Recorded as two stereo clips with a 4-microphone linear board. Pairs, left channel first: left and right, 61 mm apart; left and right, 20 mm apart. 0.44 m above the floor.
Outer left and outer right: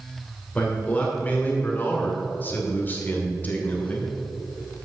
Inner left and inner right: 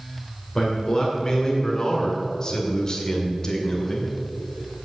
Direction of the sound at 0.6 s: 20° left (ahead or behind).